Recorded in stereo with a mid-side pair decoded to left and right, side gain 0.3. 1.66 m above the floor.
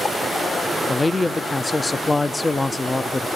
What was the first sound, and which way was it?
A man speaking, 30° left.